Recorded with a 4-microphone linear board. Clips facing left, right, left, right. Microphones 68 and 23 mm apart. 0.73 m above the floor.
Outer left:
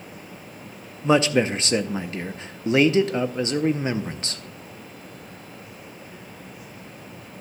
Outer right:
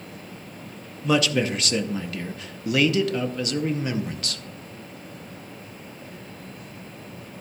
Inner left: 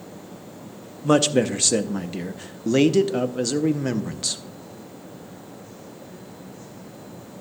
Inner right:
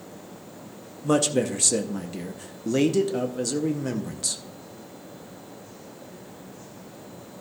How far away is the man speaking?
About 0.6 m.